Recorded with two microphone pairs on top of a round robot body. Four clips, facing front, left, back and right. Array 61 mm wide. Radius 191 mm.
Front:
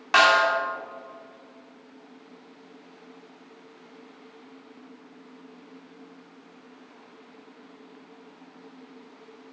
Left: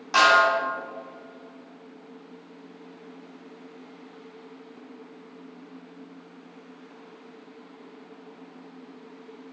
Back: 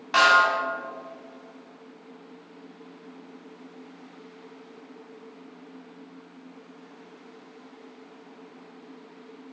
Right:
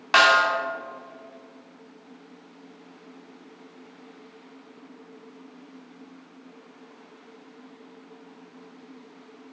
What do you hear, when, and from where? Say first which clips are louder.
0.1 s a snare drum: even, even; 65° right, 1.7 m